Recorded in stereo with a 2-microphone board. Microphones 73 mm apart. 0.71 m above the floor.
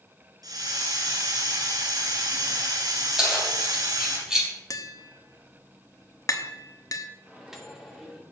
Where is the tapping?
50° left (ahead or behind), 1.1 m.